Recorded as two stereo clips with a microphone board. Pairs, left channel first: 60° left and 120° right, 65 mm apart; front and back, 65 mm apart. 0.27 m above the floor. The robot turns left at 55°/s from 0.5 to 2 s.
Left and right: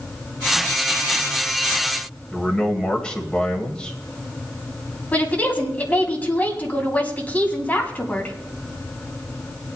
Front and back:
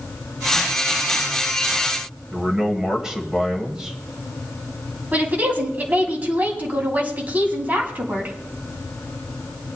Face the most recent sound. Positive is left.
turn(degrees=120)